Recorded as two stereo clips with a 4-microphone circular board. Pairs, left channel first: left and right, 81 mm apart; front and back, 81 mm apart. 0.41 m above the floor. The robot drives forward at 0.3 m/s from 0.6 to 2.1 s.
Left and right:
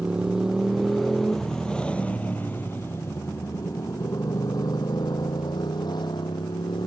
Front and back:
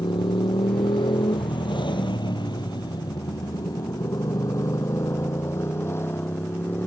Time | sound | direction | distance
0.0 | a motorcycle | 10° right | ?